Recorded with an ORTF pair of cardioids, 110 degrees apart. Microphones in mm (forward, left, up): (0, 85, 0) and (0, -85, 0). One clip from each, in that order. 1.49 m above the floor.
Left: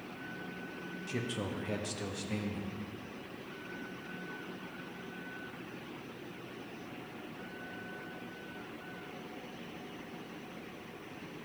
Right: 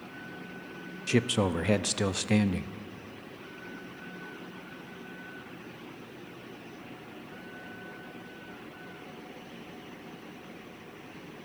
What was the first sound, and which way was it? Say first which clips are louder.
A man speaking: right 12 dB; 55° right.